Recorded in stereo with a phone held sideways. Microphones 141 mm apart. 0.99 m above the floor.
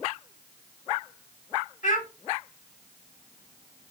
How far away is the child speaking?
About 2.5 m.